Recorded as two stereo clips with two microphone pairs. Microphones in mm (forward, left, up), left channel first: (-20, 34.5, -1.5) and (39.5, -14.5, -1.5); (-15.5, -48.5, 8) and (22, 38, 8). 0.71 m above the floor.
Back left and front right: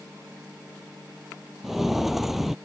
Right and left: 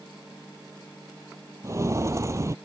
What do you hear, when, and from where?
1.6 s footsteps: 45° left